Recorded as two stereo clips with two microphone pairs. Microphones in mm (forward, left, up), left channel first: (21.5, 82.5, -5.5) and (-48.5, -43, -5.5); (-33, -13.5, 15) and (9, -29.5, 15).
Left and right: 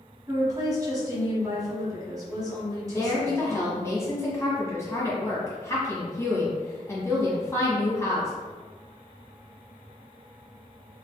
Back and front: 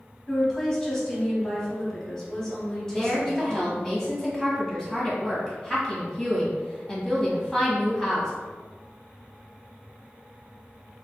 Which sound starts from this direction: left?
A woman speaking, at 2.9 s.